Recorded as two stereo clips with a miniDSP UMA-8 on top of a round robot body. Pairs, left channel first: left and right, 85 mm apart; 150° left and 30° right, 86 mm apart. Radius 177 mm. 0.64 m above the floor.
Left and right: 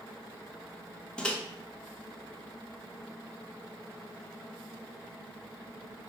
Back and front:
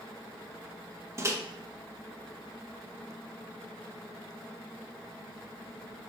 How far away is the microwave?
About 0.8 m.